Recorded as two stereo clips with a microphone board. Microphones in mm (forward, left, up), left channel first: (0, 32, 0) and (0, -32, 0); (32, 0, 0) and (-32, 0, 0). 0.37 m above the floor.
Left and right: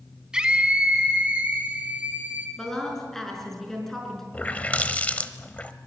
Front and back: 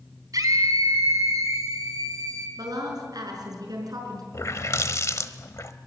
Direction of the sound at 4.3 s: 25° left.